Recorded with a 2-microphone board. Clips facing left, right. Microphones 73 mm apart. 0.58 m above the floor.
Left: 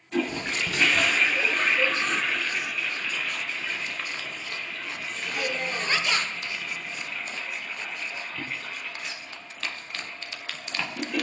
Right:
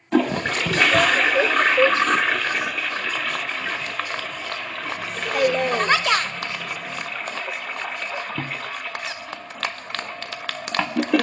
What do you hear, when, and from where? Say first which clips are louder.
0.1 s a toilet flushing: right 8 dB; 75° right (ahead or behind), 0.6 m